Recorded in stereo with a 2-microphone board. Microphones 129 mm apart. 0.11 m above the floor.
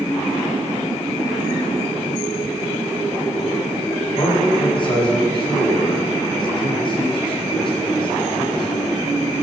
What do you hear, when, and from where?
4.2 s a man speaking: 40° left (ahead or behind), 5.5 m